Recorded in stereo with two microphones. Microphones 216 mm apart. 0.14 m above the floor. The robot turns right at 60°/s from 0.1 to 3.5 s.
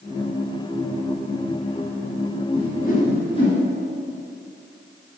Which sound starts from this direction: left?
A whoosh, at 2.5 s.